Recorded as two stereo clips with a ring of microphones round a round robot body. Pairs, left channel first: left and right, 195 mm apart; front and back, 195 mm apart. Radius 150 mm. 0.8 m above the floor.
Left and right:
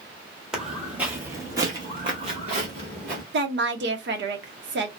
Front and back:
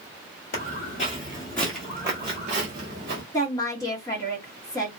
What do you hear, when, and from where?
0.5 s footsteps: 5° right, 1.0 m; by 3.2 s 150° right, 1.2 m
3.3 s a woman speaking: 75° right, 0.8 m